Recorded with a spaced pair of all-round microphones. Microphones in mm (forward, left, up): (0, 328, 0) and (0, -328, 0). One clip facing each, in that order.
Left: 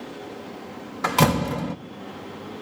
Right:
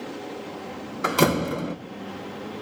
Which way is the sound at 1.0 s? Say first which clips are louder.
Right 1 dB; 25° left (ahead or behind).